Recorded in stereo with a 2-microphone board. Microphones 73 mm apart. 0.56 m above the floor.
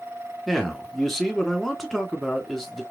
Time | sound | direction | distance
0.5 | a man speaking | 5° left (ahead or behind) | 1.4 m